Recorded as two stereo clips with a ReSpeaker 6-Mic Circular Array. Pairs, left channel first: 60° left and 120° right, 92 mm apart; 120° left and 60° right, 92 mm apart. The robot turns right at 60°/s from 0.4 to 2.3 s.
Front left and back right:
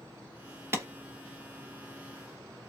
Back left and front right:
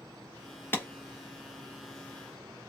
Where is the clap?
Straight behind, 2 m; by 0.9 s 170° right, 2 m.